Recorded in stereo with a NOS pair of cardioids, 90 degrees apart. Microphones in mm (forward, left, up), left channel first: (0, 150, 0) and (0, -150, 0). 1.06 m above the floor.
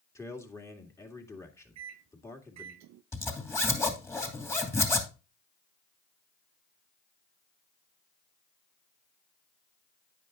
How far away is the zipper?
About 2.5 m.